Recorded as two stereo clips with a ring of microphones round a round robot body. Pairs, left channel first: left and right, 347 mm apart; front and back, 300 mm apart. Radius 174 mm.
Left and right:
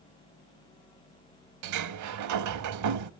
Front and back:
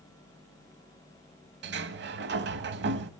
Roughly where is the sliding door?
Behind right.